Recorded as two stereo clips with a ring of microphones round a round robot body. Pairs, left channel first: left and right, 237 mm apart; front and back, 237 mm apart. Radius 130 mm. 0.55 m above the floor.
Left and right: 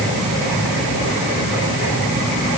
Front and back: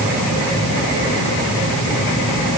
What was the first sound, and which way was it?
Only background noise.